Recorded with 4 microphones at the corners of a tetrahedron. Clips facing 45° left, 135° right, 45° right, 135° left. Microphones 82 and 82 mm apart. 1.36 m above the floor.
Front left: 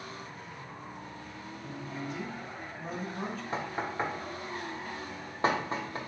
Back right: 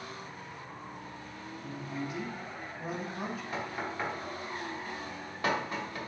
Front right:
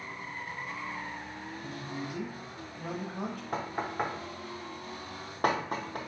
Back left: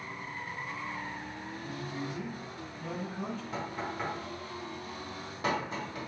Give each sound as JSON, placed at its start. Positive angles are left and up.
{"t": 1.6, "sound": "a man speaking", "azimuth_deg": -55, "distance_m": 0.8}
{"t": 3.5, "sound": "knocking", "azimuth_deg": -15, "distance_m": 0.6}